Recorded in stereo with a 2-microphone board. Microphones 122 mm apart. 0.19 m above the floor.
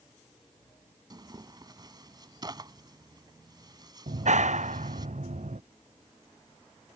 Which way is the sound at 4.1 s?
80° right.